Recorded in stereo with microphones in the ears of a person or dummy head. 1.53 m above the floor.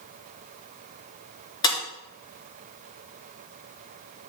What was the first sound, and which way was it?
Breaking glass, 25° left (ahead or behind).